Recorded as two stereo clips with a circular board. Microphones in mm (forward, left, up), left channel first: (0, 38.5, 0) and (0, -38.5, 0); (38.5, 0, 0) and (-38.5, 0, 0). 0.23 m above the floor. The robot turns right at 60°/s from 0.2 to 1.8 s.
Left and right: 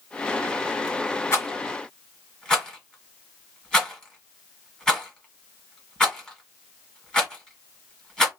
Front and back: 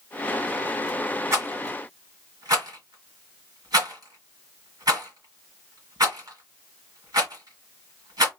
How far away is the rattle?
About 1.7 m.